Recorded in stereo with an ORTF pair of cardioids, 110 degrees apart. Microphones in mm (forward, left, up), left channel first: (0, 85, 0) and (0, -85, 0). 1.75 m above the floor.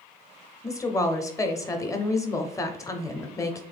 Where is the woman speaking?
20° left, 0.6 m.